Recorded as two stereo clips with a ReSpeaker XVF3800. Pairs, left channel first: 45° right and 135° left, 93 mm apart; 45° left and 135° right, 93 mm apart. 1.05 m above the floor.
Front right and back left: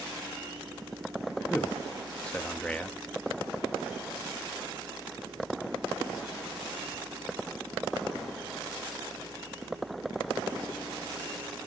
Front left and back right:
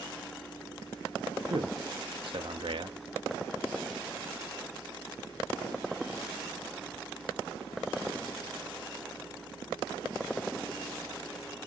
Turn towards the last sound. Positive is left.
turn(degrees=-125)